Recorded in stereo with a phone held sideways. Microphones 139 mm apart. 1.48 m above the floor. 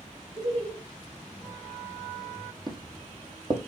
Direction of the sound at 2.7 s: 35° right (ahead or behind).